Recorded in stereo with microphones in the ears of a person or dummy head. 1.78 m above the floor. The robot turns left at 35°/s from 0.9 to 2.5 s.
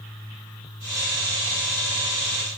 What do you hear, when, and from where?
Only background noise.